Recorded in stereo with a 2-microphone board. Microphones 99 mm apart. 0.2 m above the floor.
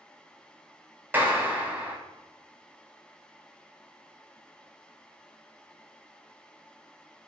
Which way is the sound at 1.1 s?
20° right (ahead or behind).